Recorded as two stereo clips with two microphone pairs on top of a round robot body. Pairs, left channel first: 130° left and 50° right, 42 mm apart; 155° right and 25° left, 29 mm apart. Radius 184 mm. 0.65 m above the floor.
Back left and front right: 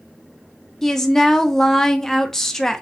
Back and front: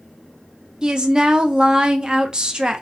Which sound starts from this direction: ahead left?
A woman speaking, at 0.8 s.